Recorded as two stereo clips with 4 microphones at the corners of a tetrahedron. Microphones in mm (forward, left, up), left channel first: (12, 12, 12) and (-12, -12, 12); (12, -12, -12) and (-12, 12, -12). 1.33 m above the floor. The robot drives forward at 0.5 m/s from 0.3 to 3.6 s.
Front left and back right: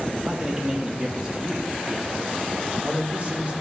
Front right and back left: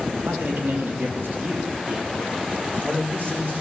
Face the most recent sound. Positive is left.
turn(degrees=165)